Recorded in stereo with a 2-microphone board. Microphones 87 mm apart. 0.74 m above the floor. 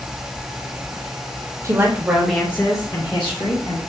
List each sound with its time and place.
1.6 s a woman speaking: 35° right (ahead or behind), 1.4 m; by 3.8 s 60° left (ahead or behind), 2 m